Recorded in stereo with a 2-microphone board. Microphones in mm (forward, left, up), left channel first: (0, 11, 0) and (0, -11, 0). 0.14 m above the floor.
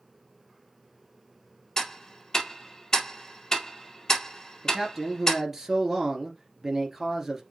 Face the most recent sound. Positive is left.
turn(degrees=-15)  # may be behind; listen again after turning